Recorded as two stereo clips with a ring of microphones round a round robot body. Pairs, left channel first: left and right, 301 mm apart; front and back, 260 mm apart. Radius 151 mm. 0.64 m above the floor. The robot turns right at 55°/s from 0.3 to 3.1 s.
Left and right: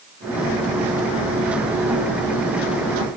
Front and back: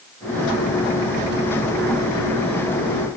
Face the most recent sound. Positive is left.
No sound to turn to.